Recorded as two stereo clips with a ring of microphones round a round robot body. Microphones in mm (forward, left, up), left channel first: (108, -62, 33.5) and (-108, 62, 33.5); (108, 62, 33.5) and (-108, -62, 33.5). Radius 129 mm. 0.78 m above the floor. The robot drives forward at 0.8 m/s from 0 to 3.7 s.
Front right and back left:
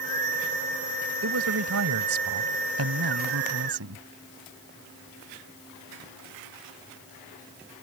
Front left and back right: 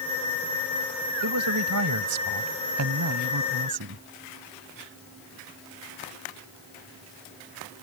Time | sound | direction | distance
1.2 | a man speaking | 175° right | ?